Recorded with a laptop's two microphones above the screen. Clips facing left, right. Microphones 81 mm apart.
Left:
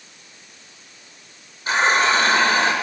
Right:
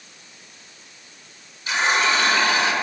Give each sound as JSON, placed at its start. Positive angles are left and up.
{"t": 1.7, "sound": "a running tap", "side_deg": 45, "distance_m": 2.5}